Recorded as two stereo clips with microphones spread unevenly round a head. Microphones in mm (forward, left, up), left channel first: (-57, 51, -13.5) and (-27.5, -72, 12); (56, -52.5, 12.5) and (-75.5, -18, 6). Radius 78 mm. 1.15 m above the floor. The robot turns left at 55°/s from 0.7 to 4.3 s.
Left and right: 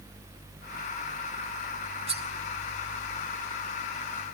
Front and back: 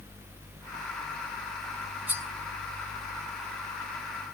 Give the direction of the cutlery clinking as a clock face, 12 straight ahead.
4 o'clock.